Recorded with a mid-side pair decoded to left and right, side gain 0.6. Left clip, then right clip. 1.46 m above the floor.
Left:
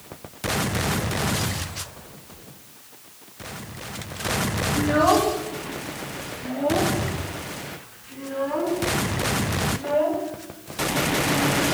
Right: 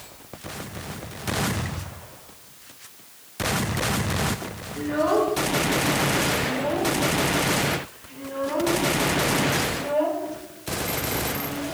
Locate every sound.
4.8 s a child speaking: 65° left, 1.9 m; by 11.7 s 10° left, 6.5 m